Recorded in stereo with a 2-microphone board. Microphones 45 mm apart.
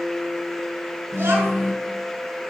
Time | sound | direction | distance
1.1 | a child speaking | 60° right (ahead or behind) | 5.5 m